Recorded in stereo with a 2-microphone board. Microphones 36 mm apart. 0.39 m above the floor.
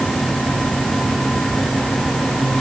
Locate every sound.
Only background noise.